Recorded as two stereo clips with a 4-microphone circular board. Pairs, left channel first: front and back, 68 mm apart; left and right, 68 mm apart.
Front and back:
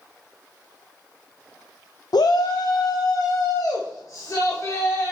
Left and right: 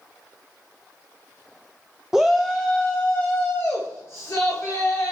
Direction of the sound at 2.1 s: 10° right.